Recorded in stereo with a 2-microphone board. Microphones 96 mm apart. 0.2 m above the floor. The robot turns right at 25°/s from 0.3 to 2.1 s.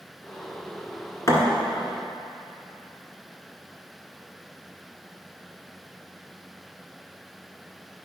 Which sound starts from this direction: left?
A thud, at 1.3 s.